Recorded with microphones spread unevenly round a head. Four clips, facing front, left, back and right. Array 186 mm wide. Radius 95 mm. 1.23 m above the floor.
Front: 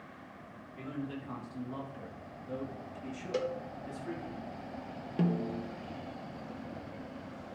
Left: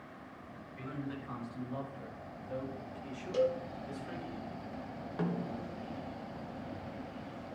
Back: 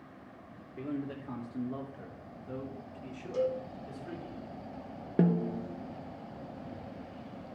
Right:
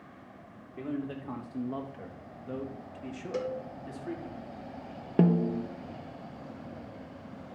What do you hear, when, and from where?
0.8 s a man speaking: 125° right, 1.7 m; by 4.3 s 65° right, 3 m
3.3 s a cowbell: 15° right, 1.2 m
5.2 s a snare drum: 115° right, 0.5 m